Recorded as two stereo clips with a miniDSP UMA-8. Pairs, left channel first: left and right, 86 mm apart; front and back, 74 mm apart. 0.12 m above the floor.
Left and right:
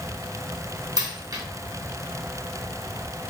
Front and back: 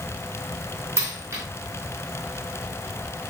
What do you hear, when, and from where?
1.0 s a dropped coin: 130° right, 2 m